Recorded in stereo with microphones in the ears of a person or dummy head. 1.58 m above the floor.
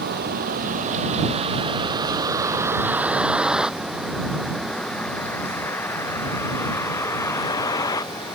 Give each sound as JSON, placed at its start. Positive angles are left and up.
{"t": 0.0, "sound": "a vehicle", "side_deg": -50}